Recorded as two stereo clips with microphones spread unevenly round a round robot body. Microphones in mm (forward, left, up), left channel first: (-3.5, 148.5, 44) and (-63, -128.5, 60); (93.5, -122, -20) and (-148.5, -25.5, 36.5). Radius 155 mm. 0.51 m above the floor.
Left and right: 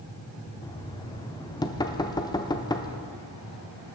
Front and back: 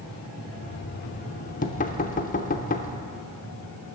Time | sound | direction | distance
0.6 | knocking | 10° left | 0.7 m